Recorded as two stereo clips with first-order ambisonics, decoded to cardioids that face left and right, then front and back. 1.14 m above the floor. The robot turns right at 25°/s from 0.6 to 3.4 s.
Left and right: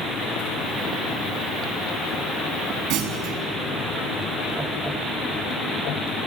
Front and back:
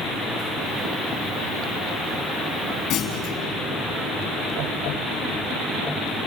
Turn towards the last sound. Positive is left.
turn(degrees=-45)